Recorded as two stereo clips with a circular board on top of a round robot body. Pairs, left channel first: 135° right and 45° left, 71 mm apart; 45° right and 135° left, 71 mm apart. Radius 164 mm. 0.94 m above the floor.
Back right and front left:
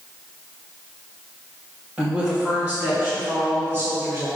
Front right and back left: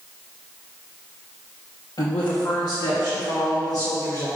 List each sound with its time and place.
2.0 s a woman speaking: 20° right, 3 m; by 4.3 s 5° right, 4.5 m